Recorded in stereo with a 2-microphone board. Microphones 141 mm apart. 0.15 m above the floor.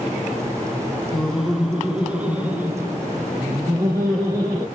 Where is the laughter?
5° left (ahead or behind), 1.1 m; by 4.7 s 20° right (ahead or behind), 2 m.